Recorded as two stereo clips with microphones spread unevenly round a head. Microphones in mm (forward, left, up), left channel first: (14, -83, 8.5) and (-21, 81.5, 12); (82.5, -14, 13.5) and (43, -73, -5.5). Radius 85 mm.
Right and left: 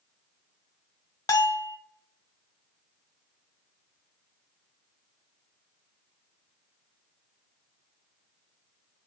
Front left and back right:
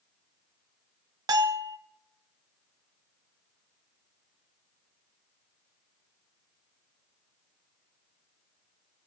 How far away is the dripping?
I don't hear dripping.